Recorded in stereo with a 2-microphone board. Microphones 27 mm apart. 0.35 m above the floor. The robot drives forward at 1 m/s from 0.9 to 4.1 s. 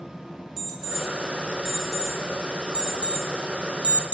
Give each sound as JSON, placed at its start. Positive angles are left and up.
{"t": 0.6, "sound": "an alarm clock", "side_deg": -10, "distance_m": 3.0}